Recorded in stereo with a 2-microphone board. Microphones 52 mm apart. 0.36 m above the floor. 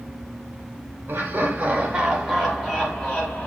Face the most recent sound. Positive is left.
turn(degrees=30)  # may be behind; listen again after turning